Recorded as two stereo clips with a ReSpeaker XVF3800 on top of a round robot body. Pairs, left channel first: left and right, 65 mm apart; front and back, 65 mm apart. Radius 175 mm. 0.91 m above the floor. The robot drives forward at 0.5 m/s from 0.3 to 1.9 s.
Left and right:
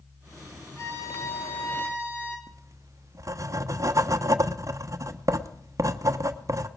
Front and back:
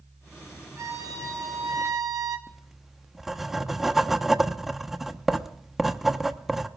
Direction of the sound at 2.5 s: 95° right.